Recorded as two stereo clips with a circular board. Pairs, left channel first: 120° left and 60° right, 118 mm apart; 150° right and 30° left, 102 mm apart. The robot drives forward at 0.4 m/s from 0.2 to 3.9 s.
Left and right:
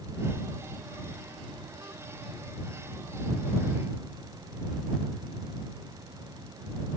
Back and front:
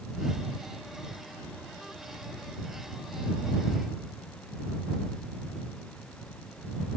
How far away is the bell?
I don't hear a bell.